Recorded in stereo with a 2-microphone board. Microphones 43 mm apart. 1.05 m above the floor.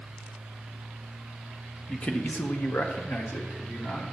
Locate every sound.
1.9 s a man speaking: 25° left (ahead or behind), 1.3 m; by 4.0 s 60° left (ahead or behind), 3 m